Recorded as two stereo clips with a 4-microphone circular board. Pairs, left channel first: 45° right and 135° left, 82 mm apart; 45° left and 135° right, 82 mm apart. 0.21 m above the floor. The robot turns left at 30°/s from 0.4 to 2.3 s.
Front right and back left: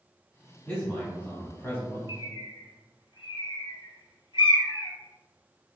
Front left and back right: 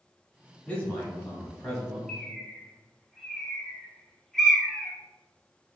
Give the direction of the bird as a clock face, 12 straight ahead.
1 o'clock.